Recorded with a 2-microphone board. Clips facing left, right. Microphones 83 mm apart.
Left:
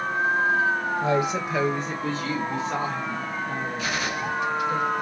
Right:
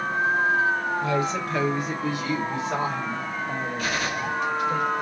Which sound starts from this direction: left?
A woman speaking, at 1.0 s.